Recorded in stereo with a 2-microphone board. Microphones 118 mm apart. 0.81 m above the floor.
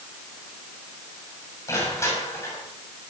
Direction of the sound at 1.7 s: 25° left (ahead or behind).